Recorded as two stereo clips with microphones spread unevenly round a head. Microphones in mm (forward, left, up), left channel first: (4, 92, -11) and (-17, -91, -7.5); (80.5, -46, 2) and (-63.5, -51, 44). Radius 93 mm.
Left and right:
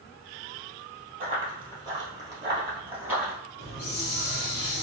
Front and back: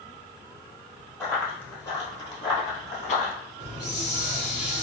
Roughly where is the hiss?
Left.